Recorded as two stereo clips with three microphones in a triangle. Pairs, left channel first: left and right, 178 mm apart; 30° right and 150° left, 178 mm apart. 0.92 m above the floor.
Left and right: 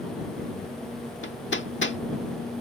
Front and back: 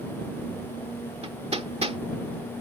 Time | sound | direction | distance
1.2 | hammering | 95° left | ?